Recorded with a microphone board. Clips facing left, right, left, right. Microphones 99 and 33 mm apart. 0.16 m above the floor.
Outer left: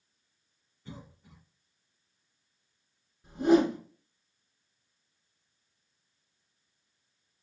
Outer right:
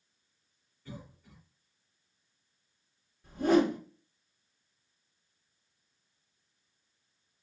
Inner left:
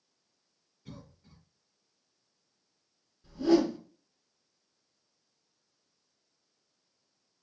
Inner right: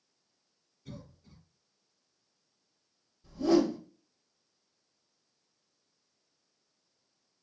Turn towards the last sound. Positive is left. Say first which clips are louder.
# outer left 2 dB, inner left 1 dB
turn(degrees=20)  # may be behind; listen again after turning